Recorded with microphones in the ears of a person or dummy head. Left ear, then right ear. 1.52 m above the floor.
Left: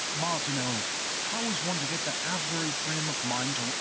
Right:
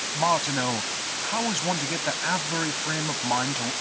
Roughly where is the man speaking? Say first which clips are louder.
Right 9 dB; right.